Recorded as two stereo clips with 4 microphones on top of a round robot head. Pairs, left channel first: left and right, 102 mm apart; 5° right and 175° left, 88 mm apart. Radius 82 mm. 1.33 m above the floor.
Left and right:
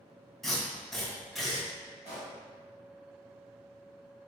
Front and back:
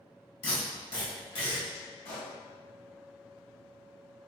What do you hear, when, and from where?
0.4 s tape being pulled: straight ahead, 1.9 m
2.0 s a pop: 15° right, 2.0 m